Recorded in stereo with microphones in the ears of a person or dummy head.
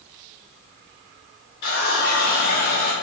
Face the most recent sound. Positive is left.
turn(degrees=40)  # may be behind; listen again after turning